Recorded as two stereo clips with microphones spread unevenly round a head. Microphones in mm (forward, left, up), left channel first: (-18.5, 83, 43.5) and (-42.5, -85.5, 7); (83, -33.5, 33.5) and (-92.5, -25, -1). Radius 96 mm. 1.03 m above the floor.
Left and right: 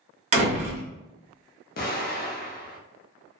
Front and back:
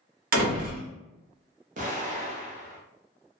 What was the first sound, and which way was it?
A door slam, 145° right.